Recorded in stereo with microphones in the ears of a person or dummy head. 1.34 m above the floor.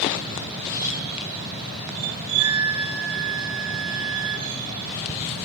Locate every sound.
2.3 s a flute: 80° right, 2.5 m